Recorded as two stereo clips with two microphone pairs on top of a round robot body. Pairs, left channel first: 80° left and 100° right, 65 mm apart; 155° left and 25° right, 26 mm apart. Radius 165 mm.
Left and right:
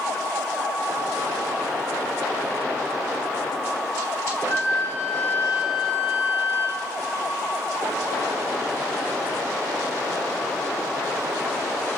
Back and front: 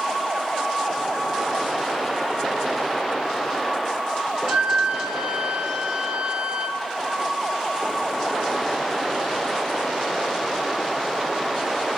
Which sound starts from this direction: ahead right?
A flute, at 4.4 s.